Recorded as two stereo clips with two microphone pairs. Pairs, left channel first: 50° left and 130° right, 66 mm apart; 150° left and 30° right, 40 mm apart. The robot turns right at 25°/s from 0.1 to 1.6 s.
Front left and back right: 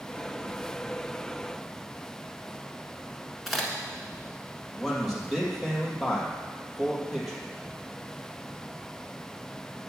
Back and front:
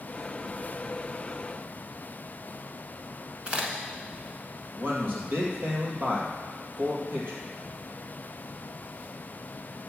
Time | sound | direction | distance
3.5 | a crack | 35° right | 1.3 m
4.8 | a man speaking | 40° right | 3 m